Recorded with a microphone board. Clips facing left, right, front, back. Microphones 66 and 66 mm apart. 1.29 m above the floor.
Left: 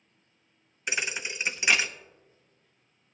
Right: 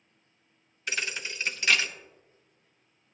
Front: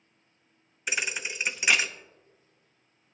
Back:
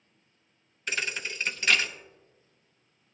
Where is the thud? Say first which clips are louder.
Left 1 dB, front 1 dB; 55° left, 0.6 m.